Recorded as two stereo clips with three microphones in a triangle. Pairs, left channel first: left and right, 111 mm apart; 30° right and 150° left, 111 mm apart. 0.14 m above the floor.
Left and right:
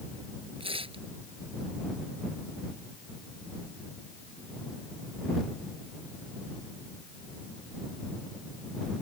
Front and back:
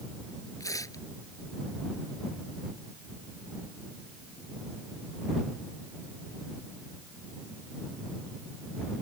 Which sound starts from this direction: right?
Tearing paper, at 0.6 s.